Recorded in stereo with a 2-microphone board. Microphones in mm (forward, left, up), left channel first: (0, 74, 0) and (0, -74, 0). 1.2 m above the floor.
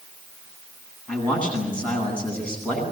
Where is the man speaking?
5° left (ahead or behind), 10 m.